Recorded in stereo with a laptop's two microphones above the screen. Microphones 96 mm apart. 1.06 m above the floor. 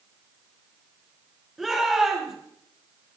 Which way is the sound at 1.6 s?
Centre (ahead or behind).